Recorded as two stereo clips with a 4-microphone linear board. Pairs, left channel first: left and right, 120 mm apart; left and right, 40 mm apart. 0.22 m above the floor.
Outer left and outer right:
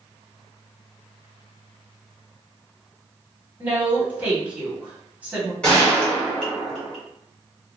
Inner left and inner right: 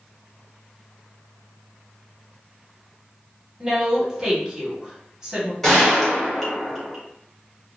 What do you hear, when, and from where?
3.6 s a woman speaking: 15° right (ahead or behind), 1.3 m
5.6 s a gunshot: 10° left (ahead or behind), 1.6 m